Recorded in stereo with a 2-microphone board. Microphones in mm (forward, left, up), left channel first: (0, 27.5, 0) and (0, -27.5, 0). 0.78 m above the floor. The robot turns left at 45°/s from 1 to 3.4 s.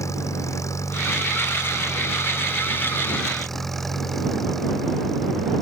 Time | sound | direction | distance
0.0 | an engine running | 110° left | ?